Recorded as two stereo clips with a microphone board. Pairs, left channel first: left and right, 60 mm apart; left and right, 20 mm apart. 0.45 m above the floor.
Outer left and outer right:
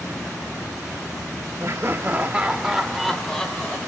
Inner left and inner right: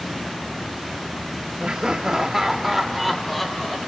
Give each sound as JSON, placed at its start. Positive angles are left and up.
{"t": 1.6, "sound": "laughter", "side_deg": -45, "distance_m": 1.4}